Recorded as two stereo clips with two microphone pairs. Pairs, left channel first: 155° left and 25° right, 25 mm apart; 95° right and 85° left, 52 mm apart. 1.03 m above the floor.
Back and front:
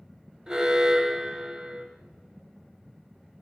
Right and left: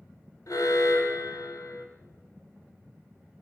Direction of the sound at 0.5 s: 80° right.